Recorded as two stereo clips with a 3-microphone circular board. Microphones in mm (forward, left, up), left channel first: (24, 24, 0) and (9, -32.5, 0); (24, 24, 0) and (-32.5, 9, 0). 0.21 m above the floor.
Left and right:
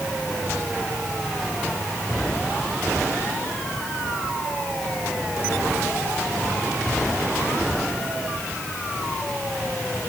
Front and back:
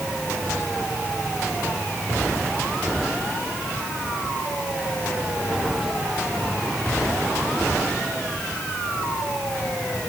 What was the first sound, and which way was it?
Only background noise.